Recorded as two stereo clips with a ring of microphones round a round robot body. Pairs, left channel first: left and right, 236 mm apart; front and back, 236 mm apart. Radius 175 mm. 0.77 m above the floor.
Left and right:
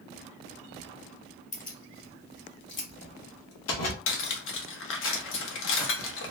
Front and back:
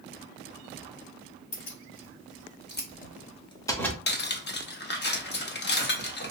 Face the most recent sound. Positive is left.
turn(degrees=50)